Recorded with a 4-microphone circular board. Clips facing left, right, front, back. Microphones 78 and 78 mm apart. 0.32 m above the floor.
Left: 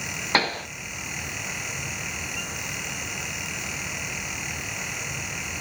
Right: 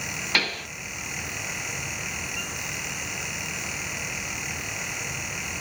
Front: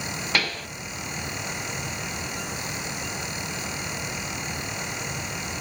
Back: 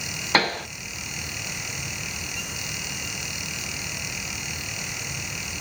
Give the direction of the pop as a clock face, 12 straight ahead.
7 o'clock.